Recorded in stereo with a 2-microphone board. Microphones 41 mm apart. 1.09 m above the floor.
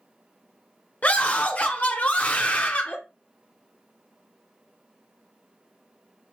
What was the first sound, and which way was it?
A scream, 35° left (ahead or behind).